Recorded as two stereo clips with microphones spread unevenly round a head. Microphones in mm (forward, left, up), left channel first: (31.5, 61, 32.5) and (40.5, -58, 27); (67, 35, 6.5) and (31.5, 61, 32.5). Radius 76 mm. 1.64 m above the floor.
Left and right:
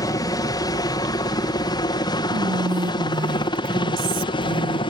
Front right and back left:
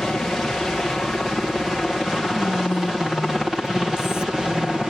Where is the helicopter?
40° left; by 4.9 s 55° left.